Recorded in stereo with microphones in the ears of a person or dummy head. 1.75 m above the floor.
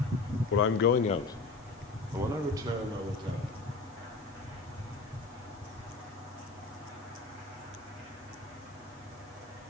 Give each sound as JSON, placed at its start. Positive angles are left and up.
{"t": 0.5, "sound": "a man speaking", "side_deg": 75, "distance_m": 0.6}